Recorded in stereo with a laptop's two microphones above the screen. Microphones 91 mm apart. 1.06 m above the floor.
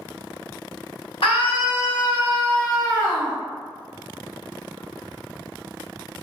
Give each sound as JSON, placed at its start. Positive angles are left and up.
{"t": 1.2, "sound": "a scream", "side_deg": 80, "distance_m": 1.1}